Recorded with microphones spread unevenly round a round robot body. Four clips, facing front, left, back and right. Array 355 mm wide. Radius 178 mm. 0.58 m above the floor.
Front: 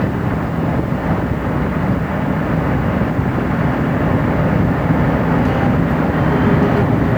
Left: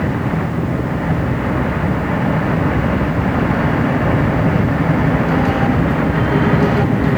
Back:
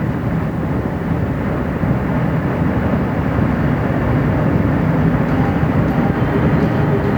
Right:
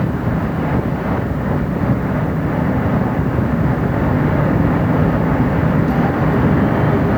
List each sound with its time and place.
Only background noise.